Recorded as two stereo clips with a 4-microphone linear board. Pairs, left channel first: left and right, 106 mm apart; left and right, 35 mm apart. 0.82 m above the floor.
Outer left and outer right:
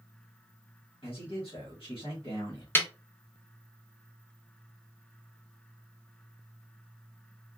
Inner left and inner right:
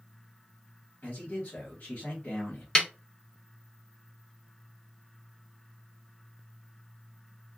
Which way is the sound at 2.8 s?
20° left (ahead or behind).